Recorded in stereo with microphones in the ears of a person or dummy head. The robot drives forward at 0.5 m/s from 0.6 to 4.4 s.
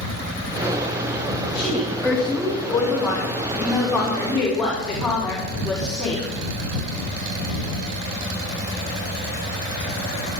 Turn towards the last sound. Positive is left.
turn(degrees=10)  # may be behind; listen again after turning